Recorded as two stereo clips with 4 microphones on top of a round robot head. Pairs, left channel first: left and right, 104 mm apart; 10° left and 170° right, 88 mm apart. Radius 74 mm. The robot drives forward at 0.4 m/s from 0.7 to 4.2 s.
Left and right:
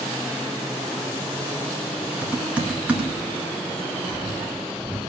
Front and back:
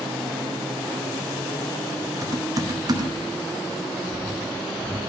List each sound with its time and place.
2.2 s typing on a keyboard: 160° right, 1.5 m; by 5.0 s 170° right, 2 m